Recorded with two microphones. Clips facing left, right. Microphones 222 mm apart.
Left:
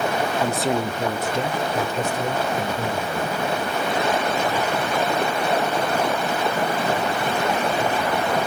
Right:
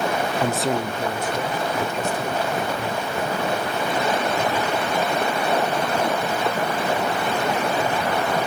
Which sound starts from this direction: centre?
A man speaking, at 0.4 s.